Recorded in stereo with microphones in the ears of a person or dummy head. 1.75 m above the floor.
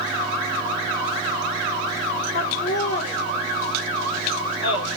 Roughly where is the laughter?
Left.